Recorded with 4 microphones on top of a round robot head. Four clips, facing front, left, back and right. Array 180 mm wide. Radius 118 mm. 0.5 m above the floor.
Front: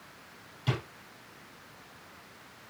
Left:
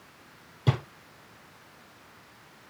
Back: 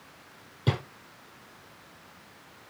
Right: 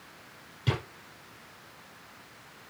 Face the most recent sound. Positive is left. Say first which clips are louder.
# left 3 dB, back 4 dB
turn(degrees=140)